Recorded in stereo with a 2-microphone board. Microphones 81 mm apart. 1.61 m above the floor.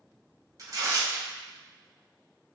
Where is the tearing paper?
45° right (ahead or behind), 1.0 m.